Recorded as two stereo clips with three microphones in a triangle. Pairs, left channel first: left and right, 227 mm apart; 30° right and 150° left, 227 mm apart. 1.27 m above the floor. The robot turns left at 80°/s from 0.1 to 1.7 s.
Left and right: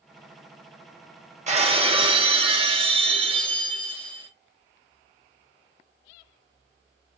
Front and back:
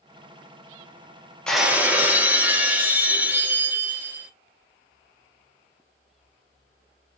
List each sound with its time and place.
1.5 s breaking glass: 115° right, 0.7 m; by 4.3 s 135° right, 0.7 m